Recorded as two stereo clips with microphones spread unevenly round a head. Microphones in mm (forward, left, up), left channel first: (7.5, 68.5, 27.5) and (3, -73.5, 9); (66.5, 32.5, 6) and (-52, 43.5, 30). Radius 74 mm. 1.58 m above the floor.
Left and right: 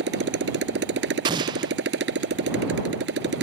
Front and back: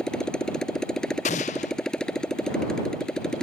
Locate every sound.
0.0 s a motorcycle: 90° right
1.2 s an explosion: 35° right